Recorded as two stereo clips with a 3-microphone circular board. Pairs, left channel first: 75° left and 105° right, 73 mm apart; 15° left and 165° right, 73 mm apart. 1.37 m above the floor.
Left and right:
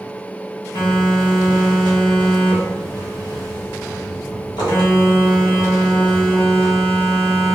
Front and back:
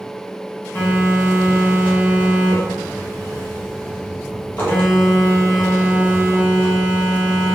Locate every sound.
0.8 s a phone buzzing: 80° left, 1.0 m